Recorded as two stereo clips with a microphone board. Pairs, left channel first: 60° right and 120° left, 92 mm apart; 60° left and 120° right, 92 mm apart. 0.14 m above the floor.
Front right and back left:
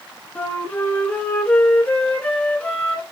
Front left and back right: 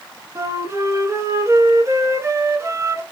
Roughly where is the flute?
Behind right.